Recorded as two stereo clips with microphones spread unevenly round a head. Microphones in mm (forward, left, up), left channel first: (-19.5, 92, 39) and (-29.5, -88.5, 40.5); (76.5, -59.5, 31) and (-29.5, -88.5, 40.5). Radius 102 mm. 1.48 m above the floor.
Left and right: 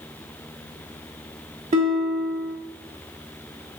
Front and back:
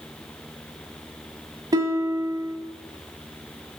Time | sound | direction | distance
1.7 | a guitar | 130° right | 1.9 m